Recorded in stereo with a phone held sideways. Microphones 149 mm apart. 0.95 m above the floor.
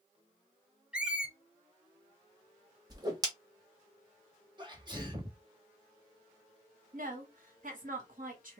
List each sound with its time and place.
0.9 s a squeak: 5° right (ahead or behind), 0.5 m
2.9 s a whoosh: 25° right (ahead or behind), 1.0 m
4.6 s a sneeze: 30° right (ahead or behind), 1.4 m
6.9 s a woman speaking: 65° right (ahead or behind), 1.7 m